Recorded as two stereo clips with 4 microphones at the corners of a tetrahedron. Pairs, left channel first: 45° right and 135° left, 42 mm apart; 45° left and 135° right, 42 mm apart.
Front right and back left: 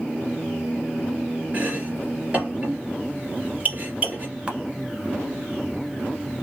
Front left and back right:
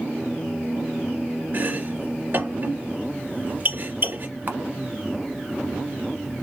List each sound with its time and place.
1.5 s chopping: 170° right, 2.5 m
4.5 s a camera shutter: 165° right, 1.0 m